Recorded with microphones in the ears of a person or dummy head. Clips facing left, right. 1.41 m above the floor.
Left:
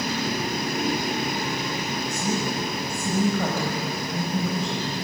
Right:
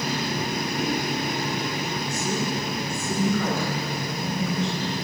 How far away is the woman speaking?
About 7 m.